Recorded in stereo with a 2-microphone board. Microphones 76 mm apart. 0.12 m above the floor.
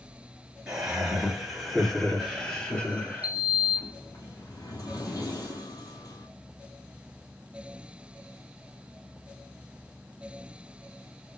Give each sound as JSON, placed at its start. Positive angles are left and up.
{"t": 0.7, "sound": "laughter", "side_deg": -15, "distance_m": 2.0}
{"t": 3.2, "sound": "a sliding door", "side_deg": 60, "distance_m": 1.2}